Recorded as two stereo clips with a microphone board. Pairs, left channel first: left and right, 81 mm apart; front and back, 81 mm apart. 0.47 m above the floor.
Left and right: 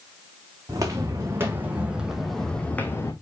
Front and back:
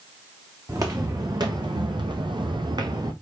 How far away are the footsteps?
About 1.8 m.